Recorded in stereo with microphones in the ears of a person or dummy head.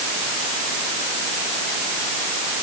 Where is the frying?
I don't hear frying.